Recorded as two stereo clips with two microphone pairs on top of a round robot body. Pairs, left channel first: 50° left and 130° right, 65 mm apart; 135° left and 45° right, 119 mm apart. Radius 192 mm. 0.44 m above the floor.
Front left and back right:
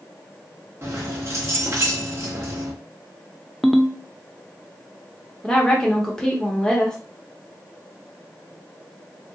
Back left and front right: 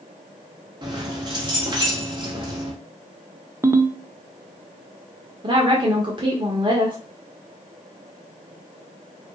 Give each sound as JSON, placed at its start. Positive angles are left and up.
{"t": 0.8, "sound": "keys jangling", "azimuth_deg": -85, "distance_m": 1.3}
{"t": 3.6, "sound": "a ringtone", "azimuth_deg": -45, "distance_m": 0.6}
{"t": 5.4, "sound": "a woman speaking", "azimuth_deg": -30, "distance_m": 1.0}